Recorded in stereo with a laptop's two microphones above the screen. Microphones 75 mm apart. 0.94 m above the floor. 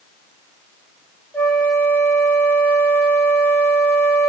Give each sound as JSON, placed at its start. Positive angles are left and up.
{"t": 1.3, "sound": "a flute", "side_deg": 30, "distance_m": 1.2}